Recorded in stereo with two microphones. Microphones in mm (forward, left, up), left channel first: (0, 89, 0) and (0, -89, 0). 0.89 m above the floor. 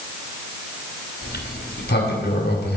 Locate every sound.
1.2 s a sliding door: 70° left (ahead or behind), 2.5 m